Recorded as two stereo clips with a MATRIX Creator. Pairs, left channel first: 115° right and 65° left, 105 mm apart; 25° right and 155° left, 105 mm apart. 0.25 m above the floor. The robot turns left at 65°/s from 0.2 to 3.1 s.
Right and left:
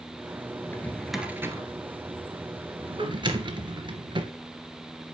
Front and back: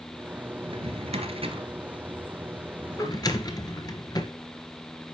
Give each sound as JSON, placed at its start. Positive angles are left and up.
{"t": 0.6, "sound": "a drawer", "azimuth_deg": -170, "distance_m": 1.7}